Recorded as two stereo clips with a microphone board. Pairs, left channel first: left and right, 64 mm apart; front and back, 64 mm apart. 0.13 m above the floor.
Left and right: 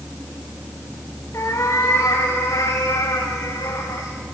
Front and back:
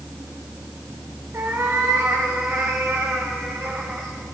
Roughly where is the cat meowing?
Behind left.